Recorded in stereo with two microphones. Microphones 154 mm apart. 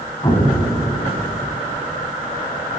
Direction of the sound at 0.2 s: 30° left (ahead or behind).